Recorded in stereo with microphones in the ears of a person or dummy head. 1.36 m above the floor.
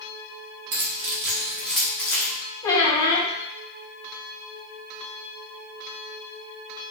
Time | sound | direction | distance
0.7 | keys jangling | 40° right (ahead or behind) | 0.9 m
2.6 | a squeak | 20° left (ahead or behind) | 0.9 m